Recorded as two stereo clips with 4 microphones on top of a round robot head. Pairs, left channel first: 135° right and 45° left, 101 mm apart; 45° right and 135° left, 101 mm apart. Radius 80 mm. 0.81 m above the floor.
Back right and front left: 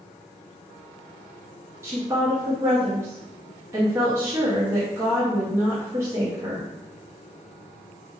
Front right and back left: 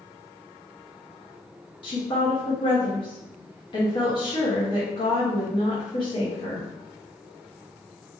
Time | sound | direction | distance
1.8 | a woman speaking | 15° right | 0.8 m